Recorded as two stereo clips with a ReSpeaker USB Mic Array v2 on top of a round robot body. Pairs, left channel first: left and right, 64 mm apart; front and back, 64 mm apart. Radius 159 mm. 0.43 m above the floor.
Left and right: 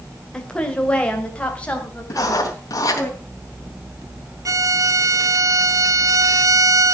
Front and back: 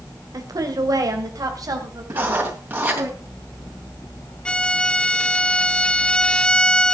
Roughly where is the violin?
Right.